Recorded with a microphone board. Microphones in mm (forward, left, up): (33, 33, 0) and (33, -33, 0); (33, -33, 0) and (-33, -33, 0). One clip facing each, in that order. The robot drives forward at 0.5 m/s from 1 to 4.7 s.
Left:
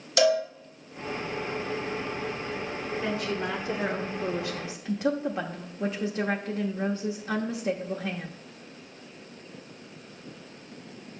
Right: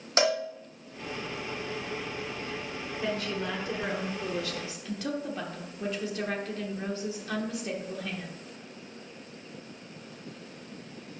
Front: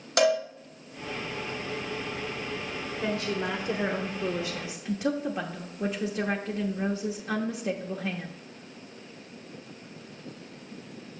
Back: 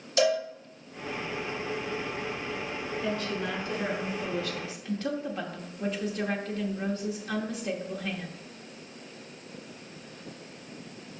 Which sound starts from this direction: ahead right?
A cowbell, at 0.2 s.